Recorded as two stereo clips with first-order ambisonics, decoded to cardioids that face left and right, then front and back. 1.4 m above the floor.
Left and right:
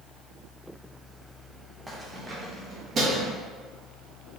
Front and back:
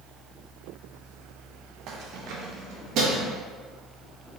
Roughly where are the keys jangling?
Behind.